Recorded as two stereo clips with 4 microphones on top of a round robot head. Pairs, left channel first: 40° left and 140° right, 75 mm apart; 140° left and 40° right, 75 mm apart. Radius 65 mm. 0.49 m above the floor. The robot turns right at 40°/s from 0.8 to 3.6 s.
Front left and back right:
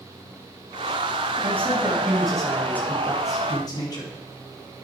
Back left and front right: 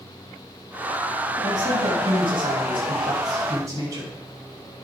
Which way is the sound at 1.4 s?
80° right.